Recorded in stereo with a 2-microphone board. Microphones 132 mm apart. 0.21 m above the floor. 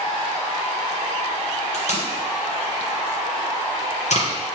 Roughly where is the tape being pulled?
Left.